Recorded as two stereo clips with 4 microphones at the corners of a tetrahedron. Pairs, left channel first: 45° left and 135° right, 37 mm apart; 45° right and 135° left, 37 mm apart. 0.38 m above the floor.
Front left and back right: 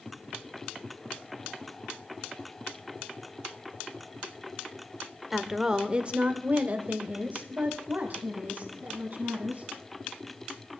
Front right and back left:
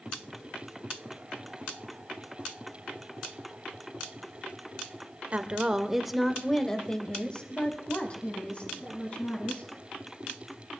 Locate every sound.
5.3 s a woman speaking: 145° left, 1.1 m; by 9.7 s 95° right, 4 m